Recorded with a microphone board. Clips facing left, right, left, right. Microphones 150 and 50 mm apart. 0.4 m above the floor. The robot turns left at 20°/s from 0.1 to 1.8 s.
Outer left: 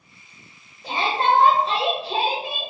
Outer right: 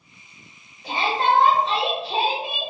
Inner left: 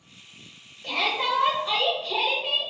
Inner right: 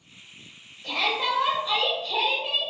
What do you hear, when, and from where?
0.8 s a shout: 35° left (ahead or behind), 1.0 m